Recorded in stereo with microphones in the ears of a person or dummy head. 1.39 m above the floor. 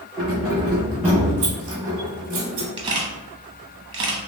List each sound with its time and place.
0.2 s keys jangling: centre (ahead or behind), 1.7 m; by 2.7 s 60° right (ahead or behind), 1.4 m
2.8 s a camera shutter: 25° right (ahead or behind), 0.8 m